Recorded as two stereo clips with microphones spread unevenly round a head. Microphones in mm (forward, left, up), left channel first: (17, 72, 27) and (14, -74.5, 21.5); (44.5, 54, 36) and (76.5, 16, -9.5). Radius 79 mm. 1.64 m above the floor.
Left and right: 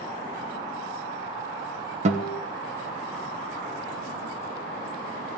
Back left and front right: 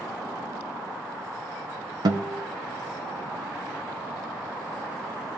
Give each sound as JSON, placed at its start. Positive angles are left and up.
{"t": 2.0, "sound": "a guitar", "azimuth_deg": -50, "distance_m": 1.1}